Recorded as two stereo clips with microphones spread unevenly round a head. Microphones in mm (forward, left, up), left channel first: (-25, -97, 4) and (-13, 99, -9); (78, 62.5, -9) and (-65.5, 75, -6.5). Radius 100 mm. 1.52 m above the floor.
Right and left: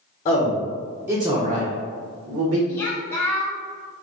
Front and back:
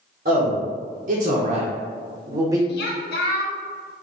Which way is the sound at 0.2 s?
145° right.